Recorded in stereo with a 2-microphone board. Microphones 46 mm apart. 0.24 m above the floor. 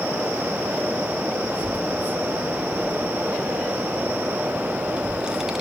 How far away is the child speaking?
About 5 m.